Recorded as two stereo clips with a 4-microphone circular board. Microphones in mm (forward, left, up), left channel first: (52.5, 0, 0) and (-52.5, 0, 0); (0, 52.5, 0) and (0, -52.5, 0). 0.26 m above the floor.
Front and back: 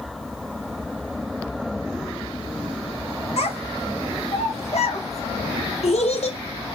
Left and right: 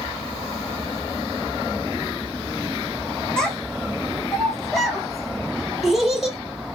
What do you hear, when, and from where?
3.4 s a child speaking: 10° left, 3.5 m; by 6.4 s straight ahead, 5.5 m